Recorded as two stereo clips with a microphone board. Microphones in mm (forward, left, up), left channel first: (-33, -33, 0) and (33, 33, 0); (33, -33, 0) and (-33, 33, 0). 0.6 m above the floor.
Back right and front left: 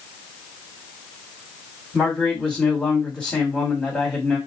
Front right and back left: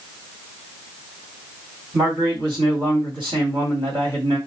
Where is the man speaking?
150° left, 2.0 m.